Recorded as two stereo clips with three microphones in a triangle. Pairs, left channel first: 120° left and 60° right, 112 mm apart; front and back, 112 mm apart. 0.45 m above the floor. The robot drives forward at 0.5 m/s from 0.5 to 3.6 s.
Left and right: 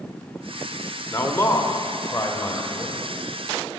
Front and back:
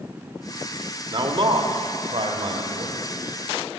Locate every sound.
1.1 s a man speaking: straight behind, 1.0 m